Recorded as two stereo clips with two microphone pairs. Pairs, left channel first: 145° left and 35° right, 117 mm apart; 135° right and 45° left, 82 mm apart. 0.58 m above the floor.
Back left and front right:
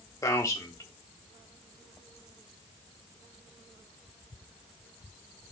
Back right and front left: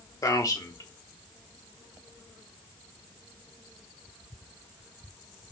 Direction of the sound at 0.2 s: 160° right.